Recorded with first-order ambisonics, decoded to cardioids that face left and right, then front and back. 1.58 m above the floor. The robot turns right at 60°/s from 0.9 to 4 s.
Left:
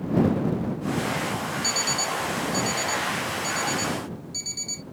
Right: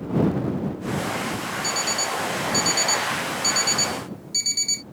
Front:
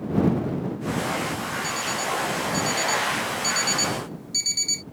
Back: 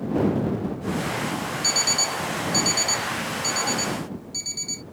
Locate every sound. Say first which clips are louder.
1.6 s an alarm clock: right 1 dB, back 6 dB; 170° left; by 4.8 s 50° right